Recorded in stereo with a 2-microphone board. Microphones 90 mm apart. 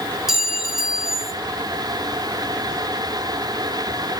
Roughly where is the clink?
Centre.